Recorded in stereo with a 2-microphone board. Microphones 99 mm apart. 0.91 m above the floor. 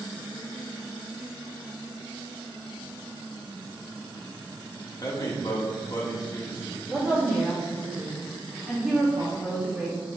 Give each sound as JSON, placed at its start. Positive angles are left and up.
{"t": 5.0, "sound": "a man speaking", "side_deg": 40, "distance_m": 0.9}
{"t": 6.9, "sound": "a woman speaking", "side_deg": -15, "distance_m": 0.8}